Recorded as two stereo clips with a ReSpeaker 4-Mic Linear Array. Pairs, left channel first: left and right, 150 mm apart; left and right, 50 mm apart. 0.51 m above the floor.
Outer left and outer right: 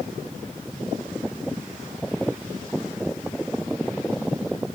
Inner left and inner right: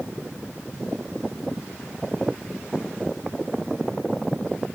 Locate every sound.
Only background noise.